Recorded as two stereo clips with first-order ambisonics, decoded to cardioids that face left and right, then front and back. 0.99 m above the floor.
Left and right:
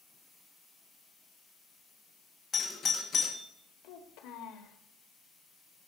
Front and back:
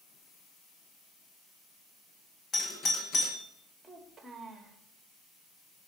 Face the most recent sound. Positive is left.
turn(degrees=100)